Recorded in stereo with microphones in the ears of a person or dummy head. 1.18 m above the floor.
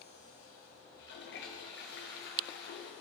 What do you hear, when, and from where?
0.9 s a toilet flushing: 45° left (ahead or behind), 0.9 m